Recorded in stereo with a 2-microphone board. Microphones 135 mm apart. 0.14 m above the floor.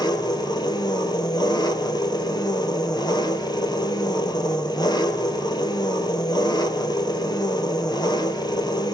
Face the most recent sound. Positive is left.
turn(degrees=30)  # may be behind; listen again after turning